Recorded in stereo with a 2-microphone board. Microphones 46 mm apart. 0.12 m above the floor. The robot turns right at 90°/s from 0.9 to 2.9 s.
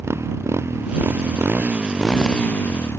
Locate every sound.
0.0 s a motorcycle: 80° right; by 3.0 s 65° left (ahead or behind)